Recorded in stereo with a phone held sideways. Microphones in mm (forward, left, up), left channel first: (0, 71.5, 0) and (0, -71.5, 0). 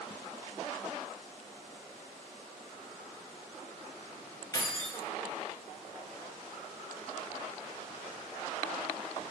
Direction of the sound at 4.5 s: 25° left (ahead or behind).